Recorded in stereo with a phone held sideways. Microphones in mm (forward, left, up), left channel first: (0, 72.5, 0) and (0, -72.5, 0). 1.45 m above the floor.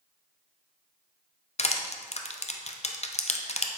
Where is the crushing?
50° left (ahead or behind), 0.7 m.